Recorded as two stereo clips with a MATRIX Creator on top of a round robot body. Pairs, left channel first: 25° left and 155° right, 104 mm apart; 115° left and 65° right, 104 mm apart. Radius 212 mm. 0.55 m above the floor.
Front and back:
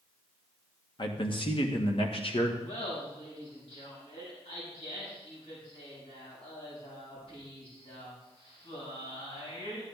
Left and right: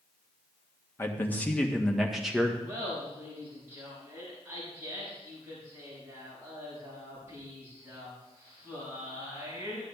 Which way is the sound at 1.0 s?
50° left.